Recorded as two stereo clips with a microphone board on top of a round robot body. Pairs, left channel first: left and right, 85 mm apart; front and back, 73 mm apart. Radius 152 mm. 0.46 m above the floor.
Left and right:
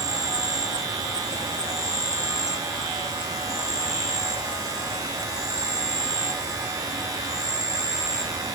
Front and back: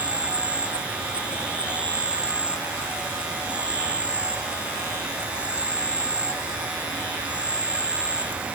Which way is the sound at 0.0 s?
110° right.